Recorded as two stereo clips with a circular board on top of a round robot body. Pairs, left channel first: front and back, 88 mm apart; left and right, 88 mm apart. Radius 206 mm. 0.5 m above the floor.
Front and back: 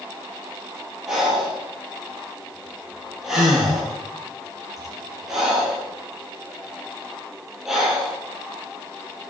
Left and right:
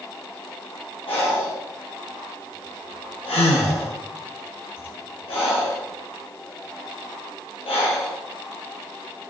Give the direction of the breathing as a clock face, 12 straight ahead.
9 o'clock.